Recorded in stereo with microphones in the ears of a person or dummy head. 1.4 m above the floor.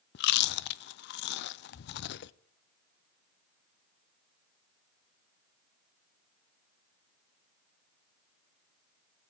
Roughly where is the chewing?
Left.